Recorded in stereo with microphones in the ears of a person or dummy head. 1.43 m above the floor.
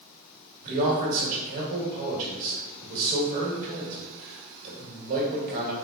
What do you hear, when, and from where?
0.6 s a man speaking: 50° right (ahead or behind), 1.4 m